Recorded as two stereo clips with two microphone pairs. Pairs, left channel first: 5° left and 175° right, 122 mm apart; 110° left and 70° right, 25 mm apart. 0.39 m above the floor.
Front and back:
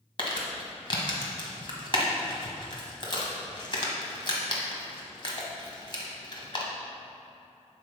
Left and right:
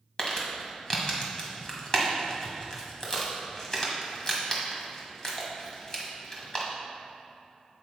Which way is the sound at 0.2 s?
50° left.